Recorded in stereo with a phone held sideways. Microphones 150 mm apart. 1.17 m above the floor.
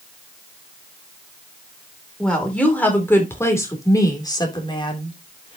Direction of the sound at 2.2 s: 5° left (ahead or behind).